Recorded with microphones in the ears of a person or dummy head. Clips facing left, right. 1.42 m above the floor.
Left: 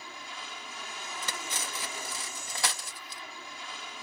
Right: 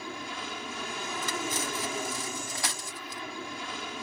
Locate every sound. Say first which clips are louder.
0.0 s an aircraft: right 8 dB; 55° right (ahead or behind)
1.2 s cutlery clinking: right 7 dB; 55° left (ahead or behind)